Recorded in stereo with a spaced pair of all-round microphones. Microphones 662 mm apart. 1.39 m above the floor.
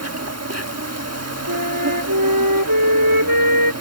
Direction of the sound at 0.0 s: 20° right (ahead or behind).